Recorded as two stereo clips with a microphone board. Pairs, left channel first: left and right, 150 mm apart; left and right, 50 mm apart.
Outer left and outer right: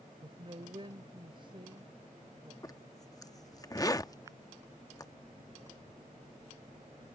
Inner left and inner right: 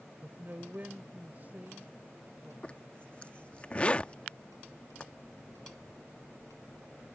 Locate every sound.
0.2 s a man speaking: 35° right (ahead or behind)
2.6 s a zipper: 25° left (ahead or behind)